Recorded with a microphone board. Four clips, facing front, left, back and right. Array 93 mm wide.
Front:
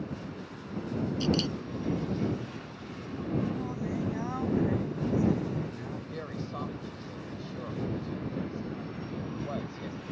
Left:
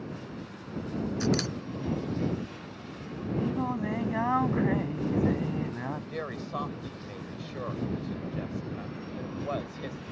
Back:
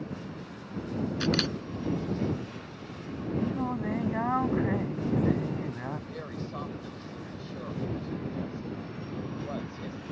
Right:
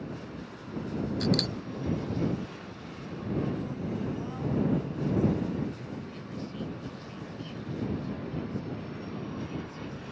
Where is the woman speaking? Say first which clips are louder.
Left 5 dB, even; 90° left.